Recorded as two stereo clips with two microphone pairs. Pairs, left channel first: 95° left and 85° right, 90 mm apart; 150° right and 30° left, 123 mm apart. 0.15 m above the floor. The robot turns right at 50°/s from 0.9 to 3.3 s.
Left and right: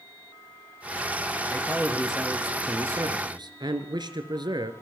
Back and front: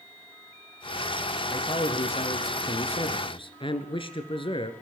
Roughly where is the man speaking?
Behind left.